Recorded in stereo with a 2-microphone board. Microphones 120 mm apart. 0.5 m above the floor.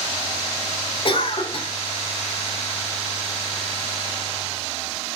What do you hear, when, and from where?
1.1 s a cough: 45° left (ahead or behind), 1.7 m